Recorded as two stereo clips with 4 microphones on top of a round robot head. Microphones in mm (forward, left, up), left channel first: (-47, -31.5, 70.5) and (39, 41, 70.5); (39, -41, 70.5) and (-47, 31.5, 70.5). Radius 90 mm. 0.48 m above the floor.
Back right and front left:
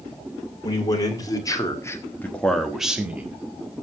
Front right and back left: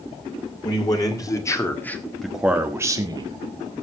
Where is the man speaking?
90° right, 2.5 m; by 3.4 s 110° left, 1.8 m.